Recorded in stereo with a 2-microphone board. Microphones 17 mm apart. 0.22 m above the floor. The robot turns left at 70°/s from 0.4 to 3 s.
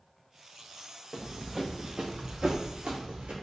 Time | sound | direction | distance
1.1 | running footsteps | centre (ahead or behind) | 0.8 m